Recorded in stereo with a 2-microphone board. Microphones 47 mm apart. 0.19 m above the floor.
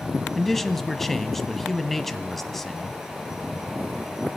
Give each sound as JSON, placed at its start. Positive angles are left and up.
{"t": 0.3, "sound": "a man speaking", "side_deg": 5, "distance_m": 1.0}